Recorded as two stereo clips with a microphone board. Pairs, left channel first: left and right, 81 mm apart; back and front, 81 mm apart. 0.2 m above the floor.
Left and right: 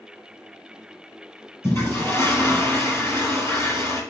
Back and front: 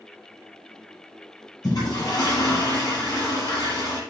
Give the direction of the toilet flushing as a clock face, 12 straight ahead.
7 o'clock.